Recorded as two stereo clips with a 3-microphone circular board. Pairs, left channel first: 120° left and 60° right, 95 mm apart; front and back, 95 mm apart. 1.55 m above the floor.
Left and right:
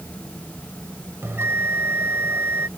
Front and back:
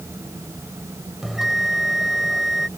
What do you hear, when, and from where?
1.2 s a bell: 95° right